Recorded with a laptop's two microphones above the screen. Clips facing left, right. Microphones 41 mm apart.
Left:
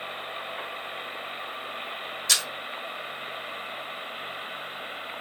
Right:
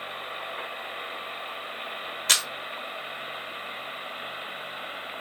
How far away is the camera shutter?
About 1.4 m.